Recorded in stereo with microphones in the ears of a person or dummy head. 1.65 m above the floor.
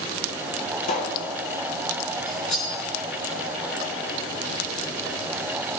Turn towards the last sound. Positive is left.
turn(degrees=45)  # may be behind; listen again after turning